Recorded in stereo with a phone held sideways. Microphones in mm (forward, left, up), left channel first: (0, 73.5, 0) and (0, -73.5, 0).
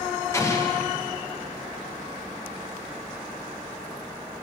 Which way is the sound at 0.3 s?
20° left (ahead or behind).